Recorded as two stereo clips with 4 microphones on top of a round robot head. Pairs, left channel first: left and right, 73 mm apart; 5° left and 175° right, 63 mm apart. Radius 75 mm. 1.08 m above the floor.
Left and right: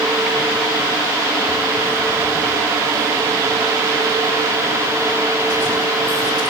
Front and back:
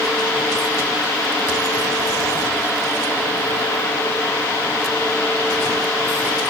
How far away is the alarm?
No alarm in this recording.